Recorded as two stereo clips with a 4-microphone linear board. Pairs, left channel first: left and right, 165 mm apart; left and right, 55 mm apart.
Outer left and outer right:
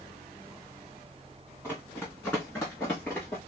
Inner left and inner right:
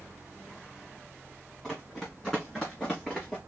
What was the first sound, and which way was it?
Running footsteps, 15° left (ahead or behind).